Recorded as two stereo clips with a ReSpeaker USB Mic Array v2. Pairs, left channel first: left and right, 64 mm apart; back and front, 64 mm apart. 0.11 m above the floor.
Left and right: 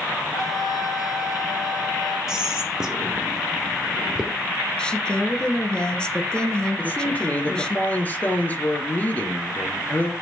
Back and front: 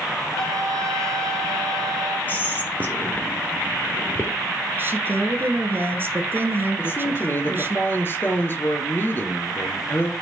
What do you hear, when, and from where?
0.3 s a trumpet: 95° left, 3.5 m
2.3 s whispering: 160° right, 1.2 m
4.8 s a woman speaking: 25° left, 1.3 m
6.8 s a man speaking: 140° left, 1.6 m